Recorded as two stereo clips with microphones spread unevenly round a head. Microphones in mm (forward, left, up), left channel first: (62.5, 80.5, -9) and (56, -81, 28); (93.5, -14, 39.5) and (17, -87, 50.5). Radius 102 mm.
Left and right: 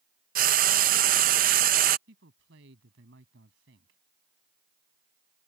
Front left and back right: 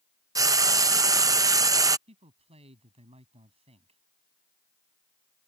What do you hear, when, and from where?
0.3 s frying: 85° right
2.1 s a man speaking: 115° right